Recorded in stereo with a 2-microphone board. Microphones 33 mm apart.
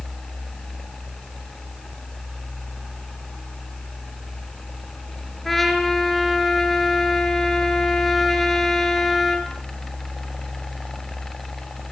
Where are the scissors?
No scissors in this recording.